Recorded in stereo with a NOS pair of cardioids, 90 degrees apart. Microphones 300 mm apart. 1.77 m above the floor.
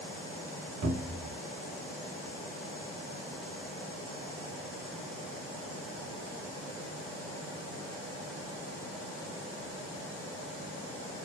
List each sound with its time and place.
0.8 s a cupboard door: 60° right, 0.8 m